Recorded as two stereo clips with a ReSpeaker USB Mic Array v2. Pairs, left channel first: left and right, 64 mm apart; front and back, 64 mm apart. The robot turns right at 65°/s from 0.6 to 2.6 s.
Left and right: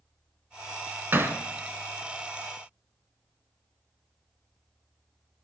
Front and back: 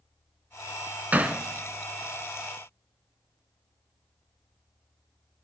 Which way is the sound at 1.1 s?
125° right.